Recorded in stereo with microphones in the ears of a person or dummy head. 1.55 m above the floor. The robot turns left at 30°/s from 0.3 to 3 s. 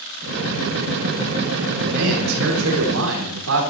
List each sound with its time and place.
1.8 s a man speaking: 65° right, 4.5 m; by 3.7 s 100° right, 4.5 m